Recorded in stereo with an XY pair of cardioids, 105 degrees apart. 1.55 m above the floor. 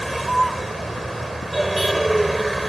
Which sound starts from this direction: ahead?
A vehicle, at 0.0 s.